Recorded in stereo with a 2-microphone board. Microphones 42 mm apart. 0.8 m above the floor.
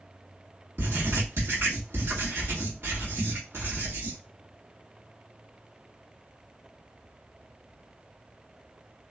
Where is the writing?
65° right (ahead or behind), 1.6 m.